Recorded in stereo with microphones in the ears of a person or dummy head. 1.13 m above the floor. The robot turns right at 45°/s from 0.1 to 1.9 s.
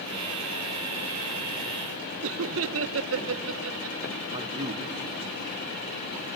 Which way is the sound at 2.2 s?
60° right (ahead or behind).